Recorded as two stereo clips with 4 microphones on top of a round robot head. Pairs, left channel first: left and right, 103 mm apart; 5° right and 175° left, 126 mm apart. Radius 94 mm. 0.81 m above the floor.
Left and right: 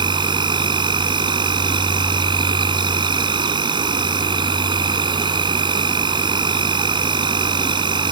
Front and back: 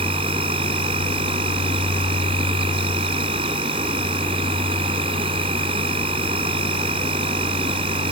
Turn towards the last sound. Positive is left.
turn(degrees=-130)